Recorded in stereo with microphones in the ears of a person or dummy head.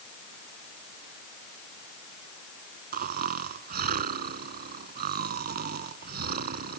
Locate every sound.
2.9 s snoring: 45° right (ahead or behind)